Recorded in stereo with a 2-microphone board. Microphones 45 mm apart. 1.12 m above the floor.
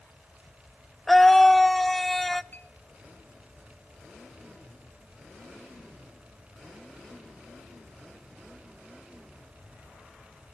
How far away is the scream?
About 0.7 m.